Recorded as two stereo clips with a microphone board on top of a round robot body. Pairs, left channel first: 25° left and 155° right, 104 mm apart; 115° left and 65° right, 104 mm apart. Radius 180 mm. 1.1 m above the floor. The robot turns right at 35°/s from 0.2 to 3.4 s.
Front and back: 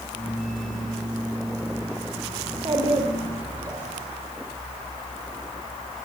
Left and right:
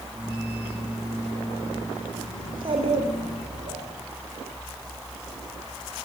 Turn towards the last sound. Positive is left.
turn(degrees=-80)